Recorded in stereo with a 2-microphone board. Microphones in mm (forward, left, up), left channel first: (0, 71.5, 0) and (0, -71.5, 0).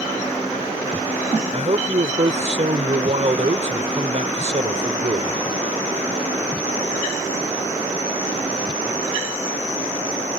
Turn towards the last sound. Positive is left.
turn(degrees=-50)  # may be behind; listen again after turning